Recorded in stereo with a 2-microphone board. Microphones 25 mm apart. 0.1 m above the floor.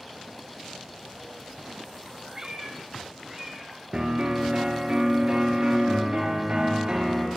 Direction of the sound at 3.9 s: 40° right (ahead or behind).